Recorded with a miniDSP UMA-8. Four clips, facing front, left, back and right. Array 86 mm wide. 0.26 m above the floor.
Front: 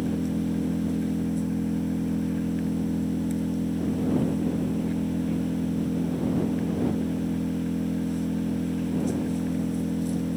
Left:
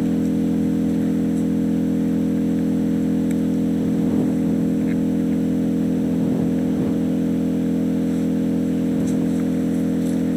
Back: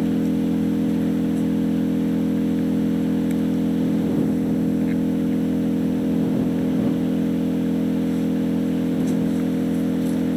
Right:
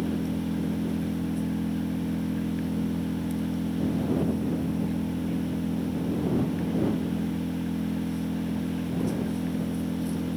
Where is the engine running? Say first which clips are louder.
Left 9 dB, back 7 dB; 130° left.